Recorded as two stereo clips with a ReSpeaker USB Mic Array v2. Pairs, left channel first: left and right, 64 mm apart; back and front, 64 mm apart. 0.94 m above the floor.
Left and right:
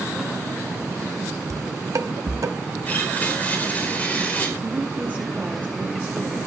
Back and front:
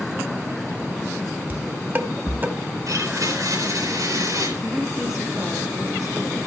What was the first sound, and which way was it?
Dishes clattering, 60° right.